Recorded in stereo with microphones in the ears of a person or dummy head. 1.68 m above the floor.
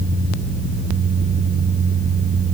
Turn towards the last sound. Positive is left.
No sound to turn to.